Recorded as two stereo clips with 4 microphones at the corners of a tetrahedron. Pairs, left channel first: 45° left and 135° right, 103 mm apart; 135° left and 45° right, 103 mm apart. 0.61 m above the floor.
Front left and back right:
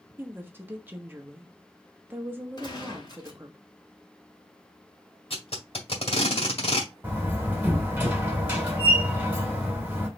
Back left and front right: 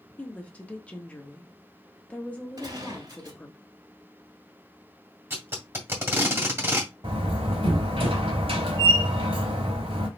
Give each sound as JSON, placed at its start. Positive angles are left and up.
{"t": 0.2, "sound": "a woman speaking", "azimuth_deg": -170, "distance_m": 1.1}
{"t": 2.6, "sound": "a gunshot", "azimuth_deg": 0, "distance_m": 2.5}
{"t": 5.3, "sound": "tape being pulled", "azimuth_deg": 20, "distance_m": 1.8}
{"t": 7.0, "sound": "a door slam", "azimuth_deg": -60, "distance_m": 2.0}